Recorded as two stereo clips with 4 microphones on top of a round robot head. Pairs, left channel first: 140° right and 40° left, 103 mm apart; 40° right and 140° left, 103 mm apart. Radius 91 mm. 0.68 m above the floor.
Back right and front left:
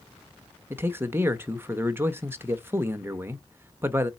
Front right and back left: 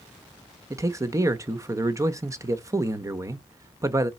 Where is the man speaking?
100° left, 0.6 m.